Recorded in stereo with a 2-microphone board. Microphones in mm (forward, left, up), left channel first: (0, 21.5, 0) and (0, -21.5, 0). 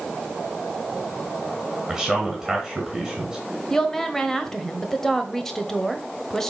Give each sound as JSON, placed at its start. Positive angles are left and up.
{"t": 1.9, "sound": "a man speaking", "side_deg": 0, "distance_m": 2.5}
{"t": 3.7, "sound": "a woman speaking", "side_deg": 10, "distance_m": 1.1}